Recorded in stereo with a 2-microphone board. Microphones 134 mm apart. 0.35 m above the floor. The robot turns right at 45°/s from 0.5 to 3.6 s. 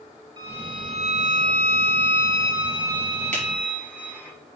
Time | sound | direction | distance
0.4 | a violin | 150° right | 1.9 m
3.3 | a finger snap | 65° right (ahead or behind) | 4.5 m